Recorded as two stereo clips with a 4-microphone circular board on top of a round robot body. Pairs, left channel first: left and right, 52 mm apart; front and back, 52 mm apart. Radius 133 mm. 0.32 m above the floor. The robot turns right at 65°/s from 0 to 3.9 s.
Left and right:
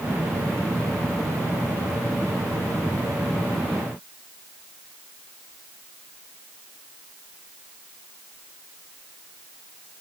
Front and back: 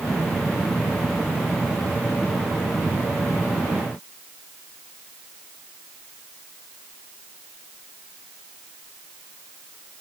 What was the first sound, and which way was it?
Only background noise.